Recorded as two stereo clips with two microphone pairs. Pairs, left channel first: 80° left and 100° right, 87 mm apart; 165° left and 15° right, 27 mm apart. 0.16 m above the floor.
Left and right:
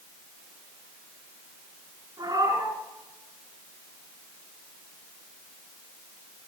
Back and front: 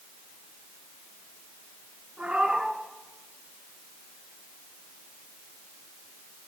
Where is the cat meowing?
60° right, 9.5 m.